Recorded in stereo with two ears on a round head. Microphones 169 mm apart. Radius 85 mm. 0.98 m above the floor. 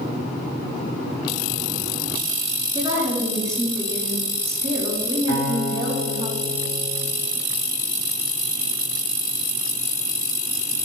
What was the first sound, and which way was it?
A woman speaking, 15° right (ahead or behind).